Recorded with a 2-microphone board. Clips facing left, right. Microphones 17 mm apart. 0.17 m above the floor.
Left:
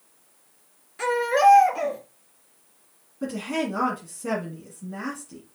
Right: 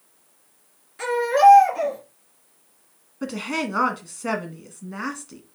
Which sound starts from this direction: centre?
A baby crying, at 1.0 s.